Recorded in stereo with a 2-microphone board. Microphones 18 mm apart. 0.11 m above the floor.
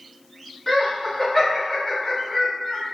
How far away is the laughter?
About 1.4 m.